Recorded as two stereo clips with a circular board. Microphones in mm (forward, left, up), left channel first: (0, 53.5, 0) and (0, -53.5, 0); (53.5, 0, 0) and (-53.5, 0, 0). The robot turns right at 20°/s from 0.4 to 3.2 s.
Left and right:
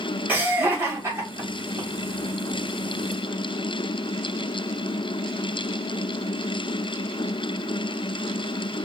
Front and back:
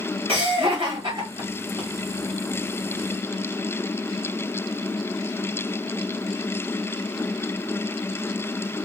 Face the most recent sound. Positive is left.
turn(degrees=-105)